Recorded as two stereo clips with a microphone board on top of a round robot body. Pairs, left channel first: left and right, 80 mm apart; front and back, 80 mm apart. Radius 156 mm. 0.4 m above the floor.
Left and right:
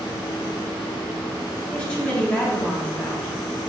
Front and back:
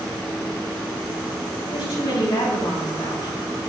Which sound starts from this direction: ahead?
A woman speaking, at 1.7 s.